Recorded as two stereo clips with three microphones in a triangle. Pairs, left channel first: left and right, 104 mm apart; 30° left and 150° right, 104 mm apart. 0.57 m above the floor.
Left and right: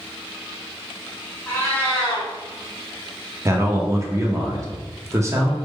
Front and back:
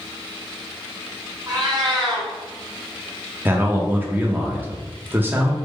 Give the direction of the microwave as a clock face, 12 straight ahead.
No microwave in this recording.